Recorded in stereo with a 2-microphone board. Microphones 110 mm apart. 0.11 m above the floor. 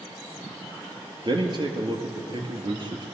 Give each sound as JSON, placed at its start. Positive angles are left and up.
{"t": 1.2, "sound": "a man speaking", "side_deg": -45, "distance_m": 2.0}